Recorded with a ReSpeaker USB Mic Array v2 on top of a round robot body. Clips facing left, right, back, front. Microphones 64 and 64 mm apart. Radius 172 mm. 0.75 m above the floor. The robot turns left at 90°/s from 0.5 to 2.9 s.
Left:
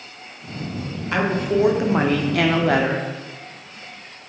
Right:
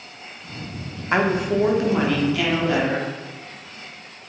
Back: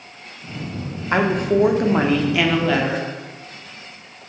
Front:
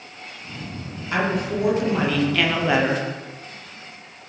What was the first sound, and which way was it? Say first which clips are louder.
A woman speaking: right 1 dB, back 5 dB; 145° right.